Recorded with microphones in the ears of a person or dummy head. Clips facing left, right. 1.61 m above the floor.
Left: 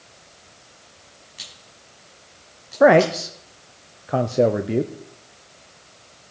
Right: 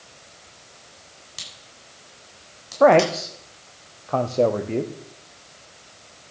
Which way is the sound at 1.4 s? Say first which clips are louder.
Right 1 dB; 50° right (ahead or behind).